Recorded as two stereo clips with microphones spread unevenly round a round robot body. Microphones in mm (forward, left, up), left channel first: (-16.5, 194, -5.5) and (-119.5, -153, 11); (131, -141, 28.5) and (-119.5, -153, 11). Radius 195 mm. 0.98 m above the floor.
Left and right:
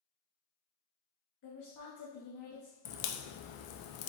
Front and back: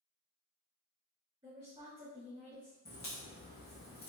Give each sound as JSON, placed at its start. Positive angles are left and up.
{"t": 1.4, "sound": "a woman speaking", "azimuth_deg": 110, "distance_m": 1.2}
{"t": 2.9, "sound": "a crack", "azimuth_deg": 70, "distance_m": 0.6}